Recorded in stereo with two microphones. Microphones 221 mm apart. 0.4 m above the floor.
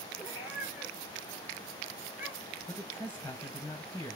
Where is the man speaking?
15° left (ahead or behind), 2 m.